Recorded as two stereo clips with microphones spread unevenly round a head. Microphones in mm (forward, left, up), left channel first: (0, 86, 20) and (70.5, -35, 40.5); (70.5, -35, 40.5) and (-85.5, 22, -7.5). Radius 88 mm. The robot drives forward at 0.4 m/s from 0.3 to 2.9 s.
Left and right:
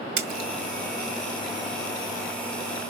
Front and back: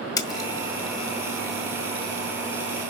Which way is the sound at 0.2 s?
80° right.